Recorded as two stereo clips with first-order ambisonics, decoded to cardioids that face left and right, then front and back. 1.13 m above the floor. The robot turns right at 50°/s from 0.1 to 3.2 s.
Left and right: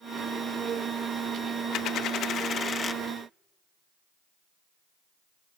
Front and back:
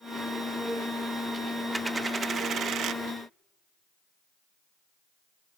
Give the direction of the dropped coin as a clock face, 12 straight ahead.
9 o'clock.